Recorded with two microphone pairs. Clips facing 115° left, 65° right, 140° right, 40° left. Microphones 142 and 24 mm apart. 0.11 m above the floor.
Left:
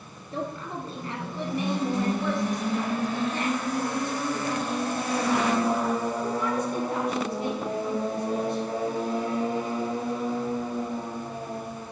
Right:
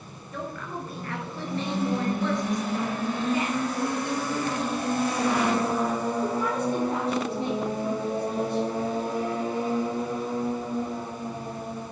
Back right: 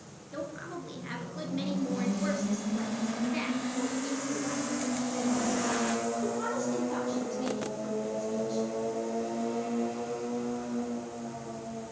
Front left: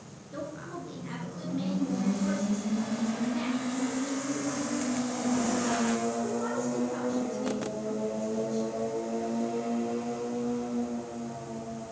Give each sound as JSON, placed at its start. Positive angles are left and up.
{"t": 0.3, "sound": "a woman speaking", "azimuth_deg": 150, "distance_m": 2.0}